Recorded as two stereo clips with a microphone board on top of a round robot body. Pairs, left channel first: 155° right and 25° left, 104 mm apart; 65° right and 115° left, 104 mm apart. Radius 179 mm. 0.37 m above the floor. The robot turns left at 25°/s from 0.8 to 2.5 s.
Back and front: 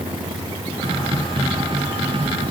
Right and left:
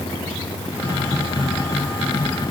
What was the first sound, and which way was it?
Only background noise.